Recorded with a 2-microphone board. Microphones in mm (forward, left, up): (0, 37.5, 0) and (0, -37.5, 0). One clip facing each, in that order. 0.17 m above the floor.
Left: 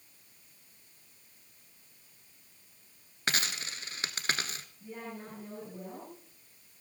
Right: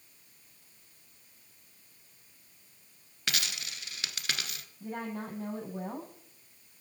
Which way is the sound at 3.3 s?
35° left (ahead or behind).